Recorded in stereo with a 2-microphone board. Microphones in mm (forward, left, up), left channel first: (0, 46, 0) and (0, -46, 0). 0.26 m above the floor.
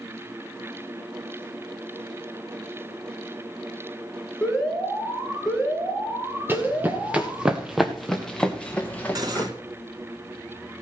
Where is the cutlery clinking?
45° right (ahead or behind), 1.9 m.